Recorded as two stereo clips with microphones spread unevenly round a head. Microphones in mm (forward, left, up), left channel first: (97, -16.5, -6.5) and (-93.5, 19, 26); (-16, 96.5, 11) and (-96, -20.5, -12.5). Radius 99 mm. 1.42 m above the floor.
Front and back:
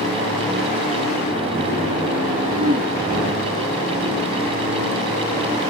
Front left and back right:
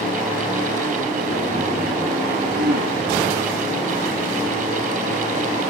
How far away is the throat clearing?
About 9 m.